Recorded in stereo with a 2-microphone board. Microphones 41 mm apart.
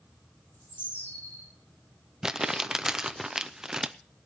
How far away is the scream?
No scream in this recording.